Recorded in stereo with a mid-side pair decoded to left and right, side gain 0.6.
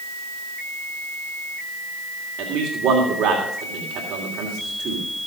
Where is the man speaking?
55° right, 3 m.